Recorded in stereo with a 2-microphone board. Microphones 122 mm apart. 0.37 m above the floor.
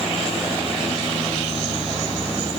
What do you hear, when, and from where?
Only background noise.